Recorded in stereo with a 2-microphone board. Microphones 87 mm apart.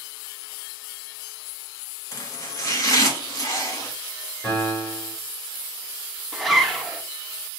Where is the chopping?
35° left (ahead or behind), 1.3 m.